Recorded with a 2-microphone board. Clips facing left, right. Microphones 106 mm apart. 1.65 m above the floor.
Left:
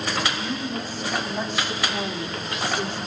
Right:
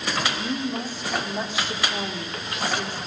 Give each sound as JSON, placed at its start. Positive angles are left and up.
{"t": 0.3, "sound": "a woman speaking", "side_deg": -20, "distance_m": 5.0}